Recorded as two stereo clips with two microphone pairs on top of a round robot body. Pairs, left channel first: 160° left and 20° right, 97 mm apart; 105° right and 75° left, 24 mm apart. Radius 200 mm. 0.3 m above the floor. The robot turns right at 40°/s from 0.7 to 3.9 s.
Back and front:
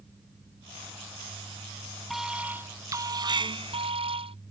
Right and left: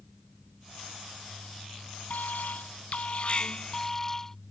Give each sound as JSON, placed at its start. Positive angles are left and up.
{"t": 2.1, "sound": "an alarm", "azimuth_deg": -105}